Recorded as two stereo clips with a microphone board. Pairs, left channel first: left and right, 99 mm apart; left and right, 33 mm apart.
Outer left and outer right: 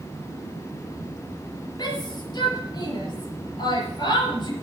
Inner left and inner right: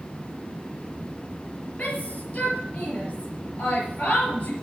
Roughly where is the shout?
Left.